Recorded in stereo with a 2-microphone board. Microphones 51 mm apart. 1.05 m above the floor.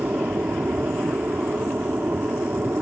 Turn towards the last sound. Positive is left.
turn(degrees=-40)  # may be behind; listen again after turning